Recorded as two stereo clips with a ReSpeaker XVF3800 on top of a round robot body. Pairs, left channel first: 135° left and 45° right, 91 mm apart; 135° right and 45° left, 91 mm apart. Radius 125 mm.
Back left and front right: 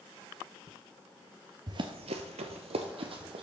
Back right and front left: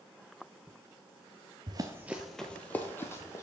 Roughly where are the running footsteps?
Ahead.